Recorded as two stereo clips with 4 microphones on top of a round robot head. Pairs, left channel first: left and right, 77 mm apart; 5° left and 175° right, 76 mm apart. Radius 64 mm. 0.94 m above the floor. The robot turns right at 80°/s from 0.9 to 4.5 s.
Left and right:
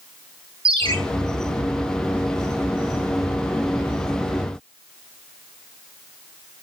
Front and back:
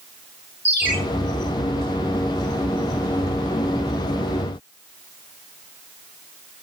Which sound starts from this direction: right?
A ringtone, at 0.7 s.